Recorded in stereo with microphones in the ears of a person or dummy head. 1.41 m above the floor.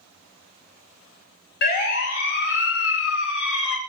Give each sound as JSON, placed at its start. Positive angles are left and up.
{"t": 1.6, "sound": "a siren", "side_deg": 60, "distance_m": 6.0}